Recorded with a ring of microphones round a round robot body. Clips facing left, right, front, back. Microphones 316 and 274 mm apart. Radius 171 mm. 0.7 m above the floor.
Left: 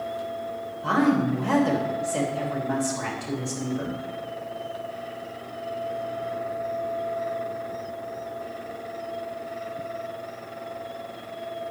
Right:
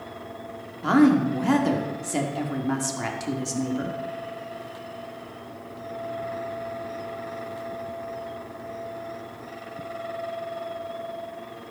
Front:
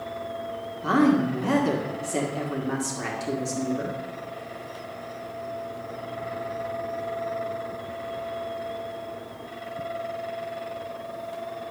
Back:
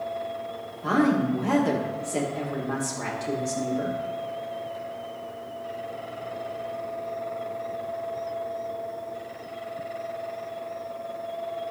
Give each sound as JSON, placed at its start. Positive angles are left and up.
{"t": 0.8, "sound": "a woman speaking", "azimuth_deg": -75, "distance_m": 1.9}